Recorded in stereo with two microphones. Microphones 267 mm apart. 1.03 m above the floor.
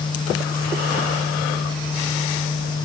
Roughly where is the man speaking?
No man speaking in this recording.